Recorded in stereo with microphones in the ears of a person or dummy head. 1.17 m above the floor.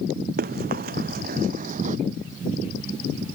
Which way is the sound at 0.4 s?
55° right (ahead or behind).